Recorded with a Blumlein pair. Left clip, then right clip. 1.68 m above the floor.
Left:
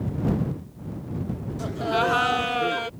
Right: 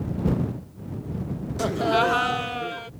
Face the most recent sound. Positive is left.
turn(degrees=25)